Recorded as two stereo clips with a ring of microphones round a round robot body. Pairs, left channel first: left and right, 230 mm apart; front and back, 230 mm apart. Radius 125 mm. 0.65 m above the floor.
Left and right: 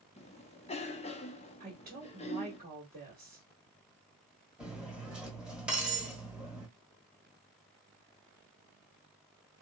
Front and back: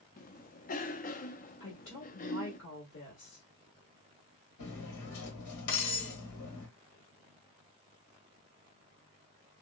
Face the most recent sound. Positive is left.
turn(degrees=-5)